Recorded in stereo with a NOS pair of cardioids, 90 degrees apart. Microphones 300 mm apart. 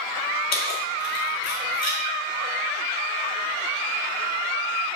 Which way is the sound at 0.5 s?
60° left.